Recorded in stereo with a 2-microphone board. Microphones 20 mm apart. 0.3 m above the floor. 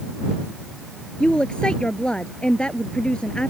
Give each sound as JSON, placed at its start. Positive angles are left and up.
{"t": 1.2, "sound": "a woman speaking", "side_deg": 50}